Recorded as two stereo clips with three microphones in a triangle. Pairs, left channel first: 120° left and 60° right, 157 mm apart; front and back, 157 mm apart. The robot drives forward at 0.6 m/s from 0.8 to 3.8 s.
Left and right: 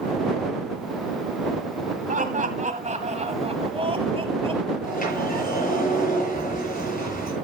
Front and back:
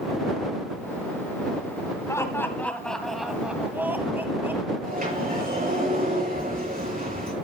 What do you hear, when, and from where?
2.1 s laughter: 65° right, 2.0 m; by 4.7 s 105° right, 1.9 m
4.8 s a sliding door: 150° left, 7 m